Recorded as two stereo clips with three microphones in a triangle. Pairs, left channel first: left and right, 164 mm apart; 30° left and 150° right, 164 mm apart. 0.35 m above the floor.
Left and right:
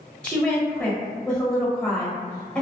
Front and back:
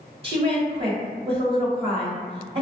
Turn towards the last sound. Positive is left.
turn(degrees=170)